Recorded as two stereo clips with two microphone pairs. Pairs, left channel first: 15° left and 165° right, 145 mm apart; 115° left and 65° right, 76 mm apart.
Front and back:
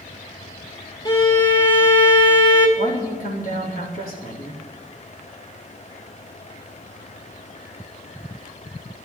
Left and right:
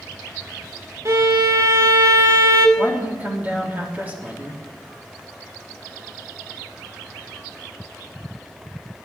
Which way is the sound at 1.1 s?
35° right.